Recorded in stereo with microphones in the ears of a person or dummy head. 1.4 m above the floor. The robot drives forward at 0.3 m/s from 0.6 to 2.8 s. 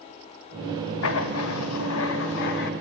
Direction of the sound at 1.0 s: 75° left (ahead or behind).